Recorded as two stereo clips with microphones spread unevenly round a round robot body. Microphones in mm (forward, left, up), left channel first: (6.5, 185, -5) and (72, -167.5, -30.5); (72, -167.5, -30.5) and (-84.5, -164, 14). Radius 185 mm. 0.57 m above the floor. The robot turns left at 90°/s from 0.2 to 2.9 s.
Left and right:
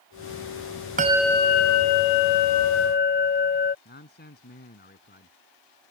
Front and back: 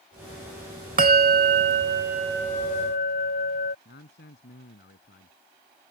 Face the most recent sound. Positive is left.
turn(degrees=35)